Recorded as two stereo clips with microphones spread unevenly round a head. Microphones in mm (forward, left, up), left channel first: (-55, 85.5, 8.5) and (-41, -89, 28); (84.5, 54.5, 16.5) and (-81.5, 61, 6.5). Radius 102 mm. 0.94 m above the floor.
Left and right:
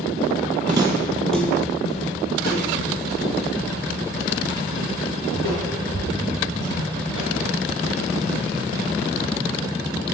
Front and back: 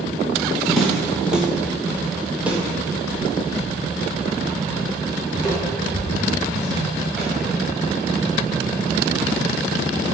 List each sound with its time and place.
0.7 s footsteps: 85° right, 1.0 m; by 8.9 s 95° left, 6 m